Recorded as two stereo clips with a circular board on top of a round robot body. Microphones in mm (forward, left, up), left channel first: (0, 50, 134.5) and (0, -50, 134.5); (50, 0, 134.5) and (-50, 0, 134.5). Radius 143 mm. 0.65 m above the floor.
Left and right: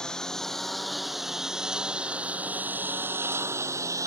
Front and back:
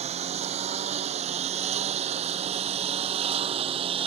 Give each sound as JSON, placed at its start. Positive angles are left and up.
{"t": 0.0, "sound": "a lawn mower", "azimuth_deg": 175}